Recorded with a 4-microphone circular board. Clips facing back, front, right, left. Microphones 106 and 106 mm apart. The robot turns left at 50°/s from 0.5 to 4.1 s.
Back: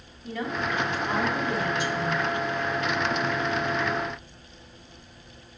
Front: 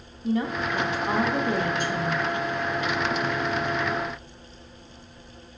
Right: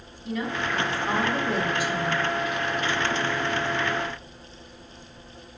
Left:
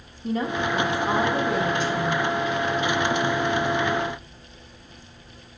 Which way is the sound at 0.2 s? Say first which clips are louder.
Front 4 dB, left 4 dB; 55° left.